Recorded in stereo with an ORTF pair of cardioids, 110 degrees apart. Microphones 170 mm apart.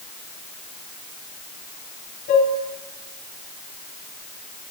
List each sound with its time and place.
2.3 s dishes clattering: 65° left, 6 m